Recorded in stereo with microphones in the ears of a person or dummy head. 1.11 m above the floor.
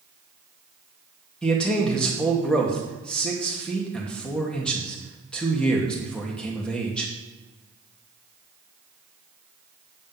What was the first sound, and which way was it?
A man speaking, centre (ahead or behind).